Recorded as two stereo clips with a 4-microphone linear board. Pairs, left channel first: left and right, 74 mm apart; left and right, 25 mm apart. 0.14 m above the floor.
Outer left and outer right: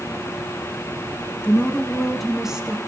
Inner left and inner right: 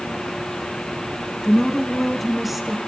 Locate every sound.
1.4 s a woman speaking: 20° left (ahead or behind), 1.1 m; by 2.8 s 15° right (ahead or behind), 1.2 m